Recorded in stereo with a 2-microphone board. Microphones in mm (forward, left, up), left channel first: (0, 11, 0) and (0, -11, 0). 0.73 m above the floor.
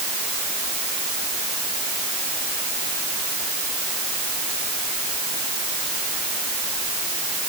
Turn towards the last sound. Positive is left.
No sound to turn to.